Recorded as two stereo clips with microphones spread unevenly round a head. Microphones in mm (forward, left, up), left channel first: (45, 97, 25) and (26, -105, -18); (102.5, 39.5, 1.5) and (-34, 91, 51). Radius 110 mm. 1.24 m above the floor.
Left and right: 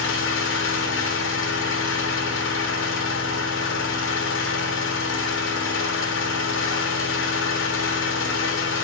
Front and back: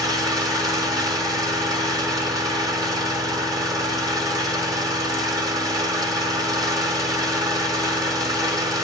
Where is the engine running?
105° left, 2 m.